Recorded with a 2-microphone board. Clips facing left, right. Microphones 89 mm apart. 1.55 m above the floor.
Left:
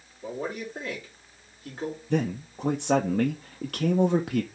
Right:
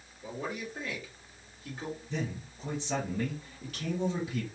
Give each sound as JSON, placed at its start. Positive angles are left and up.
{"t": 0.2, "sound": "a man speaking", "side_deg": 40, "distance_m": 2.5}
{"t": 2.1, "sound": "a man speaking", "side_deg": 65, "distance_m": 0.7}